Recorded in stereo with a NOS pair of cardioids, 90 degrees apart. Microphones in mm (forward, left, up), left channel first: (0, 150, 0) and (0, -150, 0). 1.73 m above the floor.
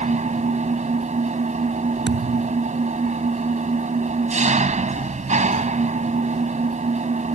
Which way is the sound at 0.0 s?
25° right.